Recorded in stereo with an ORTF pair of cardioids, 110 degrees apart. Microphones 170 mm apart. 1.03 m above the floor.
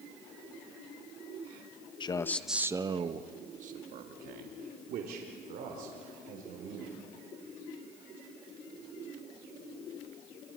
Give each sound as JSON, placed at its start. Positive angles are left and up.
{"t": 2.0, "sound": "a man speaking", "azimuth_deg": 30, "distance_m": 0.8}